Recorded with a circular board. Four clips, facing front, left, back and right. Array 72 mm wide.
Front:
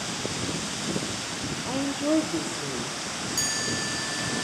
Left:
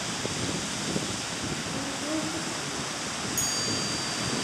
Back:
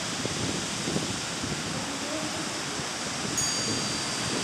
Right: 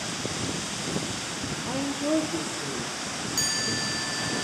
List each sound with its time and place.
1.7 s a woman speaking: 35° right, 3 m; by 3.0 s 25° right, 3.5 m
3.4 s a chime: 60° right, 1.9 m